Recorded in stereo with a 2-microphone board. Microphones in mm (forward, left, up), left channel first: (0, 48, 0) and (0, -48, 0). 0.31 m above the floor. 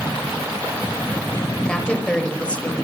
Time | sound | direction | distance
1.6 | a woman speaking | 10° left (ahead or behind) | 1.1 m